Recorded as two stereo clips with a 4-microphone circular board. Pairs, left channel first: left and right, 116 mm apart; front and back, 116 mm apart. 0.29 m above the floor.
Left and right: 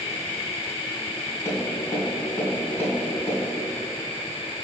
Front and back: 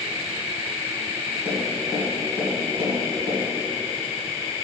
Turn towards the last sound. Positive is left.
turn(degrees=160)